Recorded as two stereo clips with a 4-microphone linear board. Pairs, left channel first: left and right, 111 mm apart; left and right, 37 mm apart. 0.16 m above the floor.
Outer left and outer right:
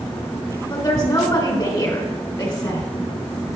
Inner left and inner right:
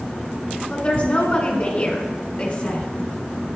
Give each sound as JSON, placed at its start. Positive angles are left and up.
{"t": 0.7, "sound": "a woman speaking", "side_deg": 35, "distance_m": 1.3}